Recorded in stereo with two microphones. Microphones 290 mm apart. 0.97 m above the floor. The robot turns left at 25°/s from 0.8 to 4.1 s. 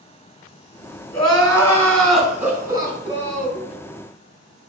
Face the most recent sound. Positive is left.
turn(degrees=-50)